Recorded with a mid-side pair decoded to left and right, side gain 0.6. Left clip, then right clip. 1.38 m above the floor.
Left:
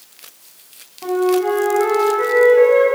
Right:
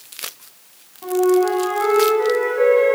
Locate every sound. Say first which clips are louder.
1.0 s a flute: even; 25° left, 9.5 m